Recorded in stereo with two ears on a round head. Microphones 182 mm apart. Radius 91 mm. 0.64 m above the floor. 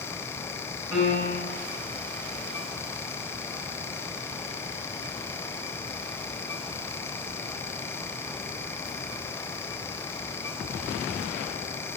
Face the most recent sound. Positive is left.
turn(degrees=-20)  # may be behind; listen again after turning